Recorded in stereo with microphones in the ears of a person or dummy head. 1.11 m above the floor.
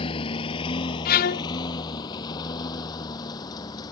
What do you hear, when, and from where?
0.0 s a lawn mower: 30° left (ahead or behind); by 3.9 s 20° left (ahead or behind)
1.1 s a violin: 50° left (ahead or behind)